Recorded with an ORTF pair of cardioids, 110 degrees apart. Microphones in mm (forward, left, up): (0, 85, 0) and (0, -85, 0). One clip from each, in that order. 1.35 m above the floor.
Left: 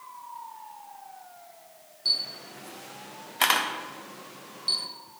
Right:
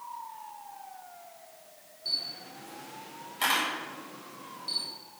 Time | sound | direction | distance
2.0 | a camera shutter | 50° left | 1.0 m